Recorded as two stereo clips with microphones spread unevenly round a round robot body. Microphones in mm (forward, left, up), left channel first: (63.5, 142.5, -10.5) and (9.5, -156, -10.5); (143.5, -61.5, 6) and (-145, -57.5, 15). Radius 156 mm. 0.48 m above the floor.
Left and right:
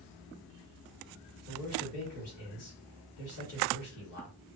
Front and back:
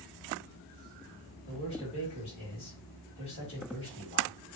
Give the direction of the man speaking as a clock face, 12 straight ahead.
10 o'clock.